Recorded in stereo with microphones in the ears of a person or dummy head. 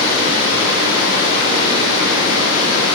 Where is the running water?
75° left (ahead or behind), 6 m.